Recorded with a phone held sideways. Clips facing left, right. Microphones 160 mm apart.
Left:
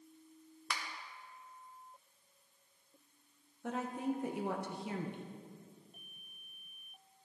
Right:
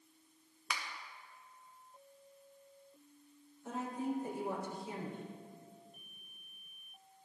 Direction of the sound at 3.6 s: 75° left (ahead or behind).